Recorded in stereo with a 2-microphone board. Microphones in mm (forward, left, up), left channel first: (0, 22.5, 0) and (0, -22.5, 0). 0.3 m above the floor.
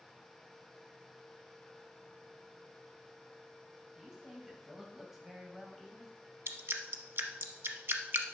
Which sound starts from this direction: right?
Dripping, at 6.5 s.